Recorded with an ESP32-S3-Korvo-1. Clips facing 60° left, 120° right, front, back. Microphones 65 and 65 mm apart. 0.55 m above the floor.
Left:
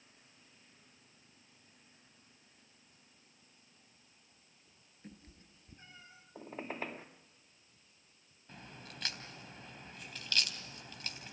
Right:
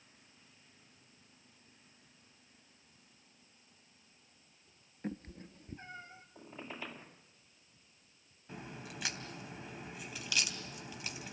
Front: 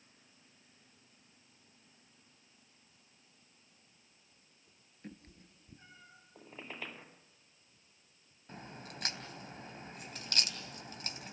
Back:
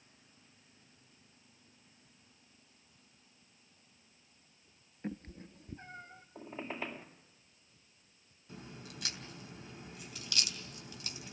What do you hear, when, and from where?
5.0 s a cat meowing: 135° right, 0.8 m; by 6.2 s 175° right, 1.1 m
6.3 s a squeak: 110° left, 2 m
8.5 s a crack: 40° right, 3 m